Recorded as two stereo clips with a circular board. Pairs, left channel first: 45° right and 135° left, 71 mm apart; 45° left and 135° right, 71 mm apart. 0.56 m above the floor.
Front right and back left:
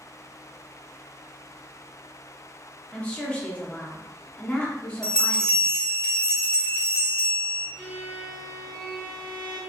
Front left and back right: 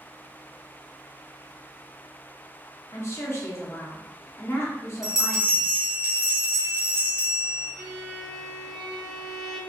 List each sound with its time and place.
2.9 s a woman speaking: 20° left, 0.7 m
5.0 s a bell: 25° left, 1.1 m
7.8 s a violin: 100° right, 1.9 m